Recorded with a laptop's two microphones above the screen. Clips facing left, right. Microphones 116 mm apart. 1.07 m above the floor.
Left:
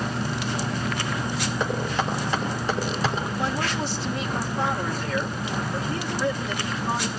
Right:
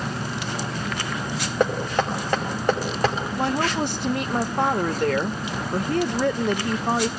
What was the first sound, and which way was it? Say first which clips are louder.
Knocking: right 6 dB; 60° right (ahead or behind).